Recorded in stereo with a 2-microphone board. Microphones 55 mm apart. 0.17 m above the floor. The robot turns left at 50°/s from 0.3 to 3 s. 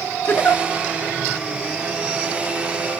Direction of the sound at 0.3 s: 40° left (ahead or behind).